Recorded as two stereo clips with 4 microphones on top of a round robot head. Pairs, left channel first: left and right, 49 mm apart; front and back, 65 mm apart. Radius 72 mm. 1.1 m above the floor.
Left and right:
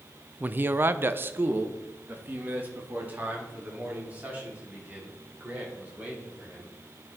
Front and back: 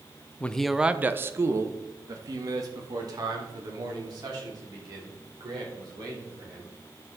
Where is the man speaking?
55° right, 0.7 m; by 6.7 s 155° right, 6.5 m.